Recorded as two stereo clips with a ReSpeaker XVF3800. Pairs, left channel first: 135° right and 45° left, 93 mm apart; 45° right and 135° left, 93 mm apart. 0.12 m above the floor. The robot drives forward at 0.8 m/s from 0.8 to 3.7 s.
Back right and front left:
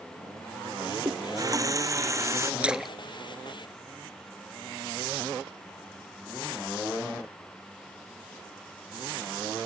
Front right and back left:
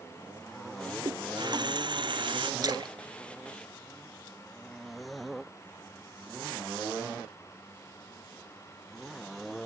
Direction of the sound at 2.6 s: 115° left.